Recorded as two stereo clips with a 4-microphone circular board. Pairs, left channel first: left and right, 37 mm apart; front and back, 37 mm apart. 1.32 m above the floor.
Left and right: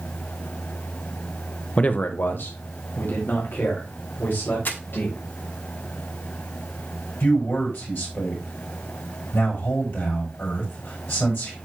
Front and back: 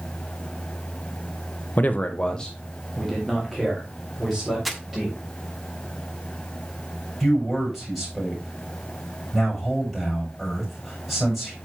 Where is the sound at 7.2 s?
90° left, 7 m.